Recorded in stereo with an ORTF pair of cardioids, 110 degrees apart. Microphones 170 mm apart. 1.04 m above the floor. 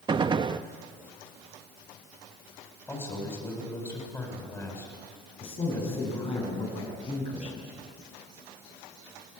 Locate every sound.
0.1 s a gunshot: 30° right, 0.7 m
2.9 s a man speaking: 15° left, 8 m
5.4 s a man speaking: 35° left, 8.5 m